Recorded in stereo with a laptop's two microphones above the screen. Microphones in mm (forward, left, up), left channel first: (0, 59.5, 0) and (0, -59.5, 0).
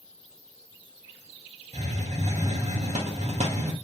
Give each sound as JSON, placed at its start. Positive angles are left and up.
{"t": 1.7, "sound": "a hiss", "side_deg": -70, "distance_m": 0.5}